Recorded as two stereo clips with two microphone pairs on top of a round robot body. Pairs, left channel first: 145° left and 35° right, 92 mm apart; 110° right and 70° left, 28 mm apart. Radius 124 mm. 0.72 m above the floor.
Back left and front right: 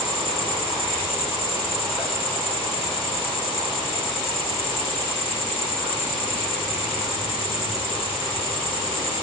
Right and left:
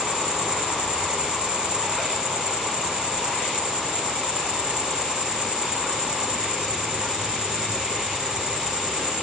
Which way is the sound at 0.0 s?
130° left.